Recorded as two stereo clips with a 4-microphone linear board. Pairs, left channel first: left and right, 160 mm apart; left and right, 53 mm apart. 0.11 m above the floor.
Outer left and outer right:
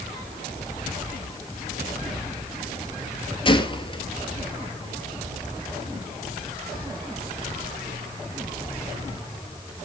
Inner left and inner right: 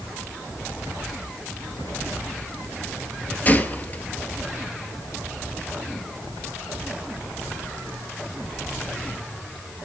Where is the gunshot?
30° left (ahead or behind), 1.4 m.